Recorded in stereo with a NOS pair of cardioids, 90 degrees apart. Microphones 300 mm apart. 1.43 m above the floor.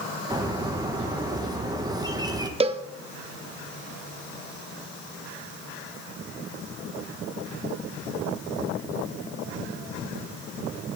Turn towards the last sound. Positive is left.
turn(degrees=-20)